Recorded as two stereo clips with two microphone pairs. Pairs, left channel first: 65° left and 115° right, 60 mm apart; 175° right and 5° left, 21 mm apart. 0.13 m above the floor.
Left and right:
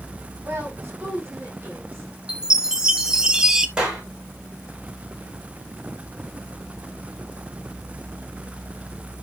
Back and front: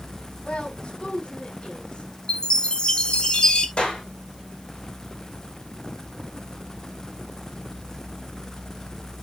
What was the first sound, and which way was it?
A woman speaking, 165° right.